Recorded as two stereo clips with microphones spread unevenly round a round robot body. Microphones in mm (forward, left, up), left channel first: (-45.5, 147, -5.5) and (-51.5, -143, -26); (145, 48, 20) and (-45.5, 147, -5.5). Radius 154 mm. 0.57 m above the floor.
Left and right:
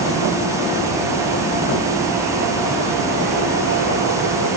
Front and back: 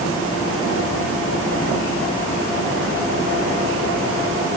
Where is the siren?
No siren in this recording.